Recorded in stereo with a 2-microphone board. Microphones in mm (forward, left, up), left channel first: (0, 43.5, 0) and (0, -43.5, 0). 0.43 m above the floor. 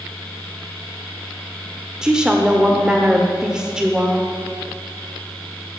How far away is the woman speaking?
About 1.0 m.